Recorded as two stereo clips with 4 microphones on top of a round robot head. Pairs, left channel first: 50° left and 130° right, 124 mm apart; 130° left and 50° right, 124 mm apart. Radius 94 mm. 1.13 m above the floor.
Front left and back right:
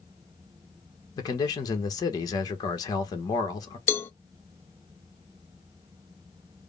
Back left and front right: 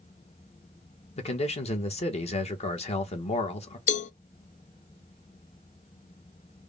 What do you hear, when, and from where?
1.2 s a man speaking: 105° left, 1.5 m
3.9 s a cowbell: 120° left, 0.6 m